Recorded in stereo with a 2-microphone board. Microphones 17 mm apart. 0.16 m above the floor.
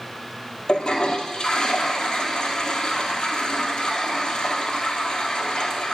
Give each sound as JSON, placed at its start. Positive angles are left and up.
{"t": 0.7, "sound": "a toilet flushing", "side_deg": 50, "distance_m": 1.2}